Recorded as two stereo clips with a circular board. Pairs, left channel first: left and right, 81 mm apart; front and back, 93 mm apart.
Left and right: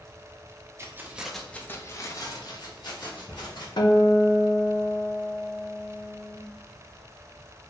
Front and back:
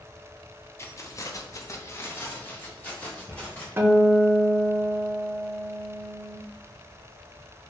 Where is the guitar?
115° left, 0.5 m.